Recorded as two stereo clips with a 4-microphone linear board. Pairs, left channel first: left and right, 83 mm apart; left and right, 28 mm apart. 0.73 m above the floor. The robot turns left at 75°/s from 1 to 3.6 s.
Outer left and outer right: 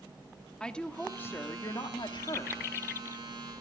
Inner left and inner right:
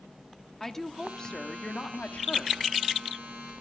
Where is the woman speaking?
170° left, 1.1 m; by 2.7 s 45° left, 1.1 m.